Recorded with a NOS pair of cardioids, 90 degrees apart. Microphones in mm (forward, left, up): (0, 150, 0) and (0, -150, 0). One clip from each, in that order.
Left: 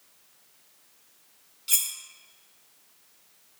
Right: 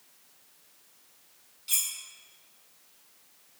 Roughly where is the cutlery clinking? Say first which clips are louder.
Left 3 dB; ahead.